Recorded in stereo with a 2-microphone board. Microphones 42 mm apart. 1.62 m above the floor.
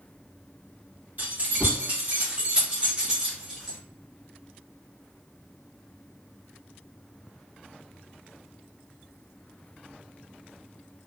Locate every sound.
1.2 s keys jangling: 45° right (ahead or behind), 1.3 m; by 3.8 s 5° right (ahead or behind), 0.9 m